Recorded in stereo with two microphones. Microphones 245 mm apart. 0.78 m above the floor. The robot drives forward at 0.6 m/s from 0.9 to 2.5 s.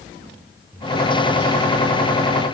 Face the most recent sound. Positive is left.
No sound to turn to.